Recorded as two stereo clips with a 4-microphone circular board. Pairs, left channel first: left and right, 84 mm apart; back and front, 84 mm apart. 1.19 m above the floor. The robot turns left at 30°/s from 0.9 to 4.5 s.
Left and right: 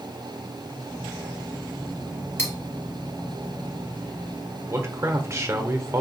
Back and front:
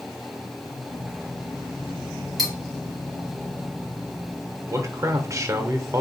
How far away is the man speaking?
About 0.9 m.